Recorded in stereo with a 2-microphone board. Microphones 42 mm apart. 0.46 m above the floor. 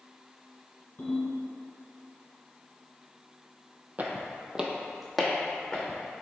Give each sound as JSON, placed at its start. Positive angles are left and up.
{"t": 1.0, "sound": "a ringtone", "side_deg": 50, "distance_m": 1.8}
{"t": 4.0, "sound": "footsteps", "side_deg": -35, "distance_m": 0.5}